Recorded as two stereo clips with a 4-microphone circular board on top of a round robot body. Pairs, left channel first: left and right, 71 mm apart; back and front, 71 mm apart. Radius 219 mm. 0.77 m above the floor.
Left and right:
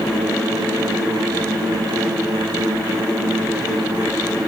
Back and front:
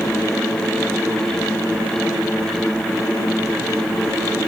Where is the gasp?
I don't hear a gasp.